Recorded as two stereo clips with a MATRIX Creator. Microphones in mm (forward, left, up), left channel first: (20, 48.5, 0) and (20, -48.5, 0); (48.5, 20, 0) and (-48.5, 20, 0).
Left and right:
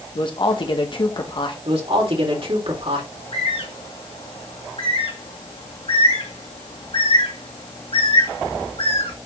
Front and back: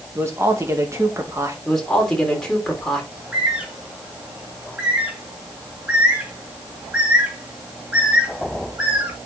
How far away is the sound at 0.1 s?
About 1.8 m.